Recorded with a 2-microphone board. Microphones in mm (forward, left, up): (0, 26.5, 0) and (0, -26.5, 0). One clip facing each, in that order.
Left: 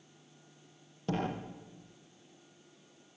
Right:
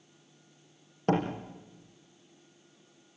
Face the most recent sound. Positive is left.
turn(degrees=-50)  # may be behind; listen again after turning